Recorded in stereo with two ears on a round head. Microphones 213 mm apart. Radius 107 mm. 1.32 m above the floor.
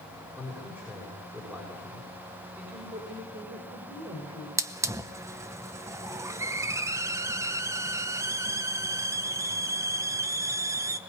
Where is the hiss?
10° right (ahead or behind), 0.7 m.